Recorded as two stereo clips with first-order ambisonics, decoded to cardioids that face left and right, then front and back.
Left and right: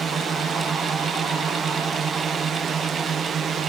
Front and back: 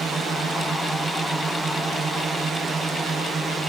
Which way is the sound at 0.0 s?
135° right.